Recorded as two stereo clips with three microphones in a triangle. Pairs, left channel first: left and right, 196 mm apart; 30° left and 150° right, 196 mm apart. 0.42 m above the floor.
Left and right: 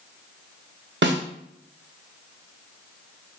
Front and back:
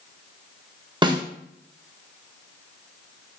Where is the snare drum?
85° right, 0.5 m.